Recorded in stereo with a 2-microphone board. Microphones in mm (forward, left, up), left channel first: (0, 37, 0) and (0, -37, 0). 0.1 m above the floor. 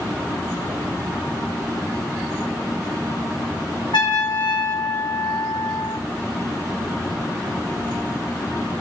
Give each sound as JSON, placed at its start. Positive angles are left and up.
{"t": 3.9, "sound": "a trumpet", "side_deg": 80, "distance_m": 3.5}